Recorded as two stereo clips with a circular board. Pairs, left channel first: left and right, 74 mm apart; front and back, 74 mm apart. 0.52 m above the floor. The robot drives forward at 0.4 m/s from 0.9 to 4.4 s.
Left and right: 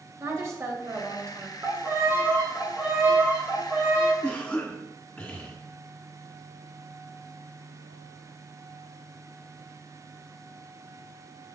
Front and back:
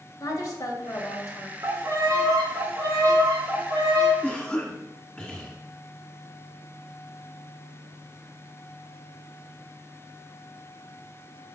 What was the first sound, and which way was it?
A woman speaking, 40° right.